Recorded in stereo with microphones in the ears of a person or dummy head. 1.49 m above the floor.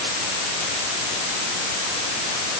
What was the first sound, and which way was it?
Only background noise.